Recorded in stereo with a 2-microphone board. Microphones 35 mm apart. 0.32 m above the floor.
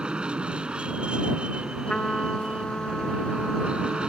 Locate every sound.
0.0 s an aircraft: 30° right (ahead or behind)
1.9 s a trumpet: 30° left (ahead or behind)